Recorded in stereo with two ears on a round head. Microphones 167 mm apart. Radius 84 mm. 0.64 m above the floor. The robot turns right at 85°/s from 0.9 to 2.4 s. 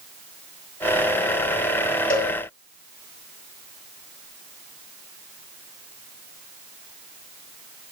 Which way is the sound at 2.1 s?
45° left (ahead or behind).